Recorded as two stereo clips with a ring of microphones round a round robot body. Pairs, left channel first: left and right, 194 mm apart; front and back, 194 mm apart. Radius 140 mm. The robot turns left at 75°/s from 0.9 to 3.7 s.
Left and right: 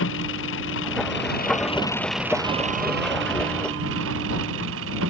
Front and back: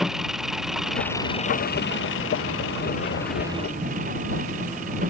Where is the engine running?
90° left; by 5.1 s 120° right.